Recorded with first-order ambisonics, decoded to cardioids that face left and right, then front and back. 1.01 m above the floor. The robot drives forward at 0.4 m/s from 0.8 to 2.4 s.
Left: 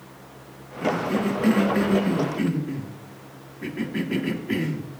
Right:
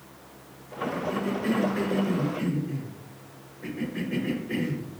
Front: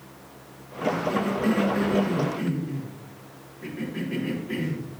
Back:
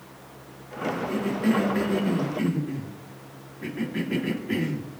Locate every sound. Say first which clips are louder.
0.8 s a cough: left 5 dB, front 3 dB; 85° left, 1.5 m; by 4.9 s 110° left, 1.6 m